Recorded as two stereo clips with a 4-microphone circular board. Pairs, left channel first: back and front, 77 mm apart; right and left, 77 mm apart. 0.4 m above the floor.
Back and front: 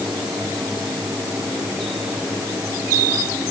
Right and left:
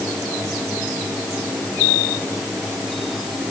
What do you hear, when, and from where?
Only background noise.